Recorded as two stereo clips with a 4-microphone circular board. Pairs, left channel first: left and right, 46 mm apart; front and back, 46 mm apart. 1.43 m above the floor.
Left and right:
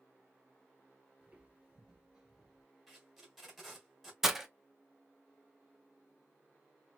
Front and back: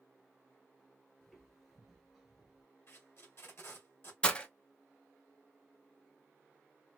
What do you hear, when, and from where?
1.2 s footsteps: 75° right, 1.5 m; by 2.6 s 160° right, 1.4 m
2.9 s tape being pulled: straight ahead, 1.6 m
4.2 s breaking glass: 20° right, 0.6 m